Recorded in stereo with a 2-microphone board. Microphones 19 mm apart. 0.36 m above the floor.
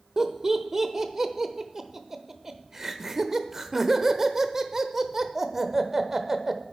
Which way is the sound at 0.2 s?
15° right (ahead or behind).